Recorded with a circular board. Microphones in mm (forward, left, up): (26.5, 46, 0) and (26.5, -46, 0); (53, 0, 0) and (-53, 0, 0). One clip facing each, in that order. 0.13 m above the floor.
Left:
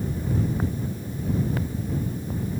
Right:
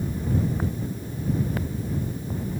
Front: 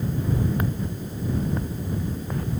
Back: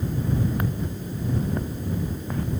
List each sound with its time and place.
Only background noise.